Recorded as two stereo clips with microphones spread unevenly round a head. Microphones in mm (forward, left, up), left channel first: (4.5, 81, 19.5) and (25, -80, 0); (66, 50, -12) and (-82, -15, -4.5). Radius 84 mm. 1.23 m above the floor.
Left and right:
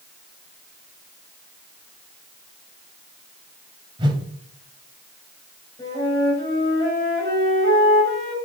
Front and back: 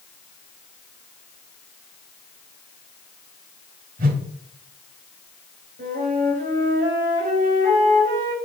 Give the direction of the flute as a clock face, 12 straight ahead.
6 o'clock.